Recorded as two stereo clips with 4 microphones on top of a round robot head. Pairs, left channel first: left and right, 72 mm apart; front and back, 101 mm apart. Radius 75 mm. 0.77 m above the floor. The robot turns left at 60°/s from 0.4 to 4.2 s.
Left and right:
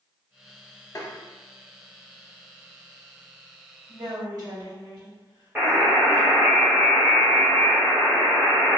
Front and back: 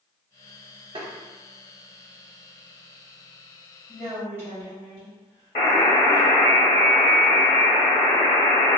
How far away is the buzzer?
About 0.6 m.